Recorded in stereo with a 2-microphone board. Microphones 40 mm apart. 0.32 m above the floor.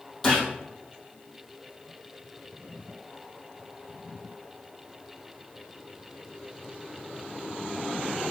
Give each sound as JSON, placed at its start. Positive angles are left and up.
{"t": 0.2, "sound": "a gunshot", "side_deg": 10, "distance_m": 4.0}